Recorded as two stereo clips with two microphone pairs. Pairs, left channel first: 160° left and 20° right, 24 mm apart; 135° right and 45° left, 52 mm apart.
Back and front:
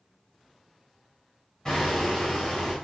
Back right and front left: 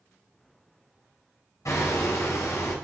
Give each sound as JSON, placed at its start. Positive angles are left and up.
{"t": 1.6, "sound": "hammering", "azimuth_deg": -130, "distance_m": 9.5}